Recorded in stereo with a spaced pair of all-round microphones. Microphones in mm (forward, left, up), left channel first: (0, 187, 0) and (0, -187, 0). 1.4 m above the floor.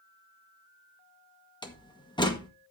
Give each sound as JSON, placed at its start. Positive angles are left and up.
{"t": 1.6, "sound": "a door slam", "side_deg": 10, "distance_m": 1.7}